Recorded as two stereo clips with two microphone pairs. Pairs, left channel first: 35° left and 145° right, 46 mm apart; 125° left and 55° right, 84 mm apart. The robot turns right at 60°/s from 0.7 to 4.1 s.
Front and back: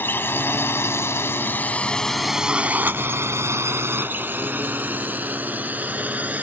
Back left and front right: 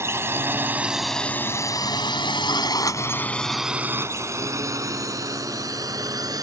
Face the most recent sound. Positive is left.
turn(degrees=-95)